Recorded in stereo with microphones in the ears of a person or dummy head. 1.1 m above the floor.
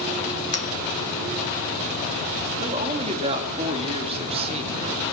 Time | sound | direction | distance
0.5 | a clink | 35° left (ahead or behind) | 0.5 m
2.6 | a woman speaking | 30° right (ahead or behind) | 2.5 m